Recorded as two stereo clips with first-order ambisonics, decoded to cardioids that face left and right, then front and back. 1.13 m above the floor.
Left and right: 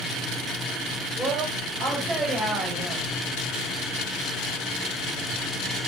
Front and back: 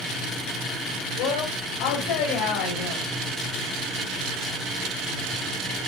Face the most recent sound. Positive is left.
turn(degrees=-15)